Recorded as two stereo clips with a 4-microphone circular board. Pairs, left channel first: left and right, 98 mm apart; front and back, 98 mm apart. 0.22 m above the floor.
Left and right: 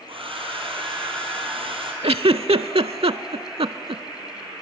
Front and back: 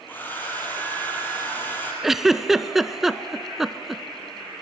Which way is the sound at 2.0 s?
95° right.